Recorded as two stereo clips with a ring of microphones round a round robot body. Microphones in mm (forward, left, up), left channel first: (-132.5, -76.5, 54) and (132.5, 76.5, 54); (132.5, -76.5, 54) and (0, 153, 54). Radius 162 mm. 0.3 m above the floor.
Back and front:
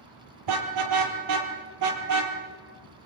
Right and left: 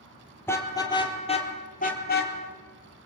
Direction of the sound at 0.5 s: 20° left.